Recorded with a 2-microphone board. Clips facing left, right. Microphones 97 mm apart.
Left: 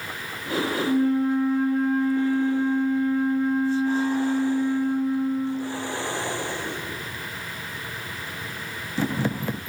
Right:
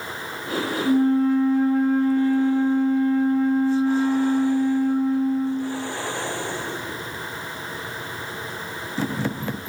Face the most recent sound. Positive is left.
turn(degrees=-35)  # may be behind; listen again after turning